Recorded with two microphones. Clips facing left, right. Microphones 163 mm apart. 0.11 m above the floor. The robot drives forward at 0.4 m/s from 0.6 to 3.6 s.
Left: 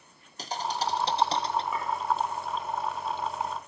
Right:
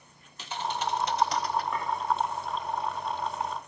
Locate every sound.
0.4 s a thud: 40° left (ahead or behind), 0.9 m; by 1.6 s 25° left (ahead or behind), 1.2 m
1.7 s a clink: 5° left (ahead or behind), 9.5 m